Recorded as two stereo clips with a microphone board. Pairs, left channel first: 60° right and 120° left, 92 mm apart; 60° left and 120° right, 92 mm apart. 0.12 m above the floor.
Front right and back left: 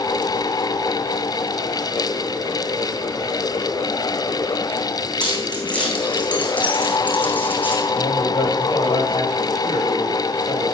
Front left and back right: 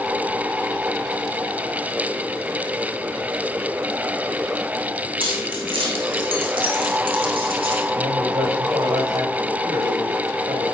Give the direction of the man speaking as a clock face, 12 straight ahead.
3 o'clock.